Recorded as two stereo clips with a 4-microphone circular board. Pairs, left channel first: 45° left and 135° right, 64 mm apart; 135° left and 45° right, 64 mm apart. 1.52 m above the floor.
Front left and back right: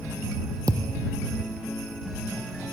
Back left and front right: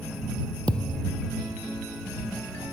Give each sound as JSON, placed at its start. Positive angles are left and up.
{"t": 0.7, "sound": "a thud", "azimuth_deg": -150}